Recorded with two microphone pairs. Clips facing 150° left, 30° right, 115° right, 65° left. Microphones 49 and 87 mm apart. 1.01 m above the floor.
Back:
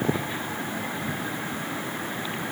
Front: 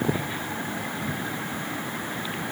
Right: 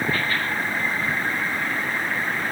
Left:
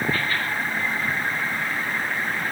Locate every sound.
Only background noise.